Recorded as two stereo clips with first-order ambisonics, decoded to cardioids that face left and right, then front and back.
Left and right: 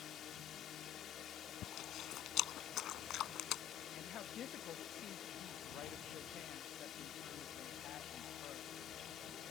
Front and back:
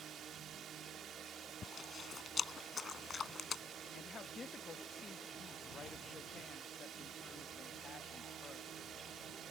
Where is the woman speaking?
60° left.